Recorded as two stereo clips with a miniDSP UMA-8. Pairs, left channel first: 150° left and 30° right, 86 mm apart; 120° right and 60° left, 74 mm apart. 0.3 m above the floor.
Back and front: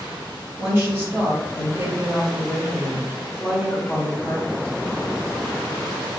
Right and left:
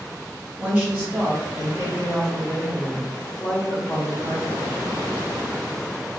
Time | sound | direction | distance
0.6 | a woman speaking | straight ahead | 2.0 m